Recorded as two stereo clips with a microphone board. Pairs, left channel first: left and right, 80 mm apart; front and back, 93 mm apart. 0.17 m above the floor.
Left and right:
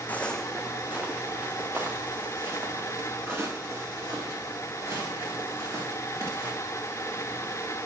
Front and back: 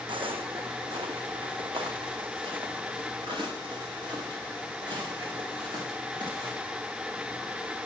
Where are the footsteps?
155° left, 0.6 m; by 6.5 s 140° right, 5.5 m.